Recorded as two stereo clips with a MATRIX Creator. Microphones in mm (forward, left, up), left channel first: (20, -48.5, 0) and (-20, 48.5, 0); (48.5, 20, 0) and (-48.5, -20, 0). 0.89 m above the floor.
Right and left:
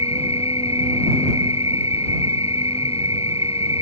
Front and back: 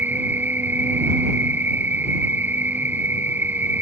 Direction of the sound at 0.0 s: 85° right.